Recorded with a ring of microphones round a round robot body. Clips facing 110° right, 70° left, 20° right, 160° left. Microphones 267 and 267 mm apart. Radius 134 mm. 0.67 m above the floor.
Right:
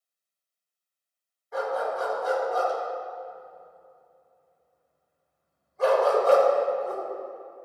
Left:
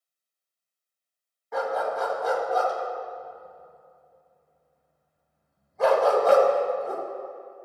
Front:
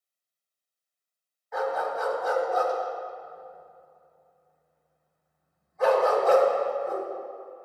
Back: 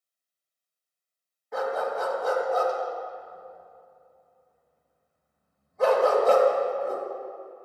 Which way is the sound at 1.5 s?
100° left.